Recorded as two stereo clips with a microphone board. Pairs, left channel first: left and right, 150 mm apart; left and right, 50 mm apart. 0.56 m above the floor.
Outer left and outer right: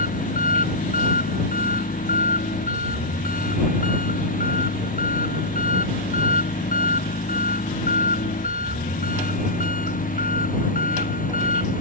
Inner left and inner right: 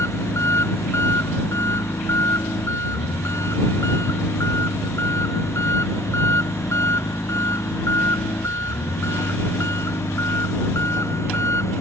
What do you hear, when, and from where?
0.0 s an engine running: 65° left (ahead or behind)